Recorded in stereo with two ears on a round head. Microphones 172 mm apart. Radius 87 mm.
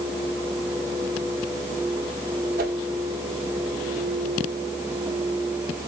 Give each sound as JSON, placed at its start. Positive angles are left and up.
{"t": 2.6, "sound": "a whoosh", "side_deg": -50, "distance_m": 1.6}